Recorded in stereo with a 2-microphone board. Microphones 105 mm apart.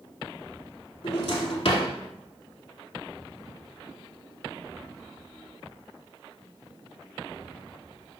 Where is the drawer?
70° left (ahead or behind), 0.7 m.